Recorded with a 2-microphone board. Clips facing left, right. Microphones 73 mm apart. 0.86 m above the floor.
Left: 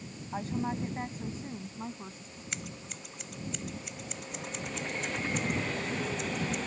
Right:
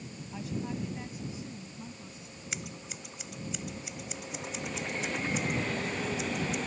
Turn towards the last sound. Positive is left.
turn(degrees=-5)  # may be behind; listen again after turning